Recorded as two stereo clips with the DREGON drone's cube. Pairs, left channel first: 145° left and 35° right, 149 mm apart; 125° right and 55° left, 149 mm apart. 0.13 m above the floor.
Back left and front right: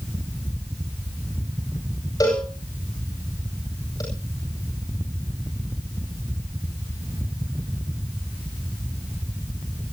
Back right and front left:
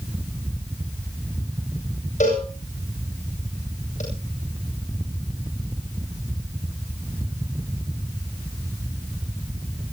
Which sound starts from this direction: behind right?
A cowbell, at 2.2 s.